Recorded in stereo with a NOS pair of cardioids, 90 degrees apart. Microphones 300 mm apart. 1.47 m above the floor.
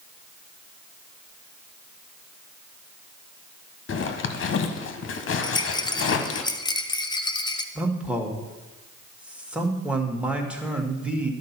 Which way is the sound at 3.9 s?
45° left.